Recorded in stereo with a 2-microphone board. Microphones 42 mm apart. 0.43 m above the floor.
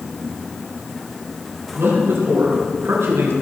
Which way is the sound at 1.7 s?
75° right (ahead or behind).